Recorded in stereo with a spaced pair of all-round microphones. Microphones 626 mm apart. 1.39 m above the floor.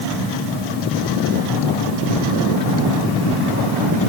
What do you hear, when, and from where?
Only background noise.